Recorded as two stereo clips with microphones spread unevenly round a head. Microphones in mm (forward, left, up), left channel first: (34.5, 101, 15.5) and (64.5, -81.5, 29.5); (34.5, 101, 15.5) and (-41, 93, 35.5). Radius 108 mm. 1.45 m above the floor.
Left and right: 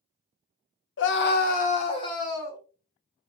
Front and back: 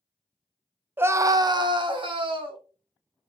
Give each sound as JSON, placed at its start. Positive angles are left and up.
{"t": 1.0, "sound": "a scream", "azimuth_deg": 115, "distance_m": 0.7}